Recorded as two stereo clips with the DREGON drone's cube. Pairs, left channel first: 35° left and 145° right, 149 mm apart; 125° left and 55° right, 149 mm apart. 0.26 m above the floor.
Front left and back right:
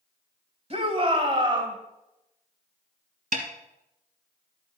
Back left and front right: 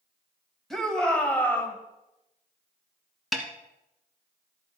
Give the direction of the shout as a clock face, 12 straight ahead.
5 o'clock.